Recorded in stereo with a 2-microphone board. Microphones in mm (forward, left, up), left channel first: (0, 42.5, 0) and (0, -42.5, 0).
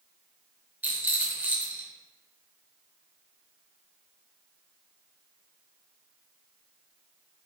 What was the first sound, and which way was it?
A rattle, 20° right (ahead or behind).